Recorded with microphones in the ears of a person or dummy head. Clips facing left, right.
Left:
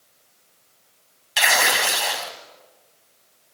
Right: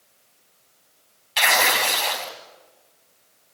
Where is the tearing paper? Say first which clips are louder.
Even; 5° left (ahead or behind), 2.5 m.